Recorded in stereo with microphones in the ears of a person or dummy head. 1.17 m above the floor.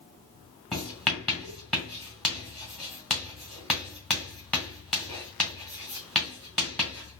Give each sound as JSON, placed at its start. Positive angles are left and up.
{"t": 0.7, "sound": "writing", "side_deg": 0, "distance_m": 1.9}